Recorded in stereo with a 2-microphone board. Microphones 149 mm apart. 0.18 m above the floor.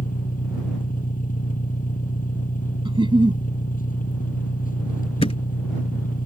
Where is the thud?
40° left (ahead or behind).